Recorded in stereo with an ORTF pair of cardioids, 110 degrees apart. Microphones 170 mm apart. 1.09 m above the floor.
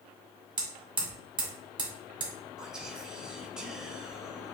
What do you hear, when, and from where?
0.6 s hammering: 30° right, 1.7 m
2.6 s whispering: 5° right, 0.9 m